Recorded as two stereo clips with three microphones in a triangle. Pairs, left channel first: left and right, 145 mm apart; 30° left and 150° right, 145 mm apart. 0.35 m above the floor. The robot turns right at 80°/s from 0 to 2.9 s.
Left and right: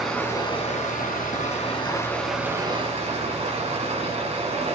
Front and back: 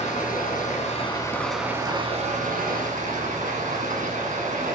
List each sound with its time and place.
0.0 s running water: 5° right, 2.5 m; by 4.7 s 130° right, 2.5 m